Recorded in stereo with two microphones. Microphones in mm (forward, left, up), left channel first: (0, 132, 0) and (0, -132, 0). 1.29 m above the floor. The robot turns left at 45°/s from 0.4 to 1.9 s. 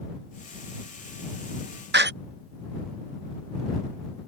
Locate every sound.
1.9 s a door slam: 40° right (ahead or behind)